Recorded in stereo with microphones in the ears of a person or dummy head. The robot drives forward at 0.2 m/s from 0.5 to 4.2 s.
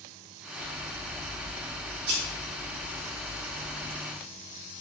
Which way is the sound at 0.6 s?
50° right (ahead or behind).